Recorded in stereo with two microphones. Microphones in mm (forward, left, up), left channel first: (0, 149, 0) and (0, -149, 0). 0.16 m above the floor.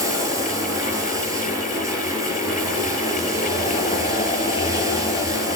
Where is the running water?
10° right (ahead or behind), 3 m.